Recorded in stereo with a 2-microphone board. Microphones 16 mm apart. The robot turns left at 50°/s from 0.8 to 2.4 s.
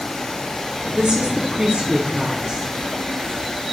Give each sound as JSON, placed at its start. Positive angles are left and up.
{"t": 0.9, "sound": "a woman speaking", "azimuth_deg": -60, "distance_m": 0.6}